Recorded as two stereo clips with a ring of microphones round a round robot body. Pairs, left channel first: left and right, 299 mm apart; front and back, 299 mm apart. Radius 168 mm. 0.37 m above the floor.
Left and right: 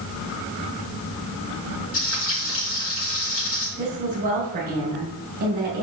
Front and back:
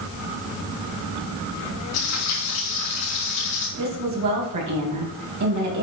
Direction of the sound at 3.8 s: 155° right.